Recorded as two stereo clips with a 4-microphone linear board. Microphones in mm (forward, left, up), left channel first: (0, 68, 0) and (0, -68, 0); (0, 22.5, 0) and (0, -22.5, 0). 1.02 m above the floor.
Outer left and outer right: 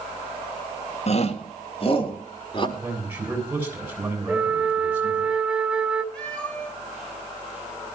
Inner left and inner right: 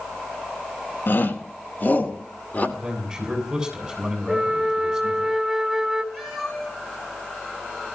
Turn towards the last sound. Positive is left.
turn(degrees=10)  # may be behind; listen again after turning